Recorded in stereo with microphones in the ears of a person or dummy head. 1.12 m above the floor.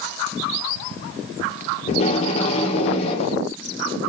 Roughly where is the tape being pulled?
Left.